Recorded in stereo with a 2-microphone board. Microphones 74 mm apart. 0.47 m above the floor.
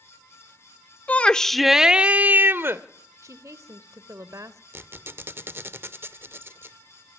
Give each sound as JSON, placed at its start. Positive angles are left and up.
{"t": 1.1, "sound": "a shout", "side_deg": 20, "distance_m": 0.9}
{"t": 3.2, "sound": "a woman speaking", "side_deg": -50, "distance_m": 1.3}
{"t": 4.7, "sound": "a squeak", "side_deg": -35, "distance_m": 0.5}